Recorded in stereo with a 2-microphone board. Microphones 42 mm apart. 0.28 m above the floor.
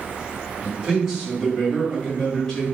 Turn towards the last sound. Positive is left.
turn(degrees=15)  # may be behind; listen again after turning